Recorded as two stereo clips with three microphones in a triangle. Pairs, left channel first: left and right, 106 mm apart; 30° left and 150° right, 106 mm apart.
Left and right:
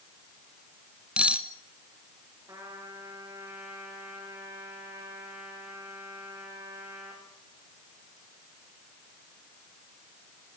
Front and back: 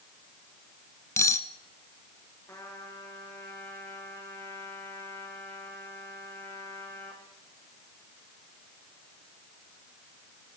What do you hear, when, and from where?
1.2 s cutlery clinking: 15° right, 0.9 m
2.5 s a trumpet: 30° right, 7.5 m